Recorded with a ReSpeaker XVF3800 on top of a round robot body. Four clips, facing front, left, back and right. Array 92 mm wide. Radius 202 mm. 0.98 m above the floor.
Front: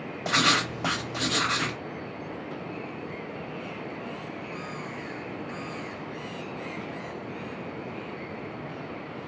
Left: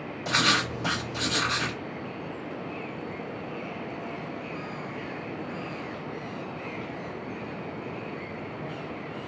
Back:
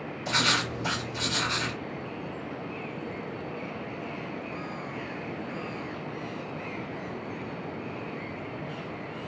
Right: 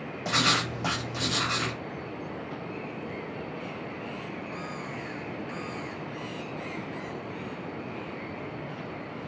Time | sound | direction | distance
0.2 | writing | 15° right | 1.1 m